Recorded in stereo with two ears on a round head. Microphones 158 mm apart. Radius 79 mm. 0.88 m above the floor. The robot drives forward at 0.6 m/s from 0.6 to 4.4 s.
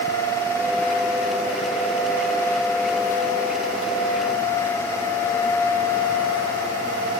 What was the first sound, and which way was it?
Only background noise.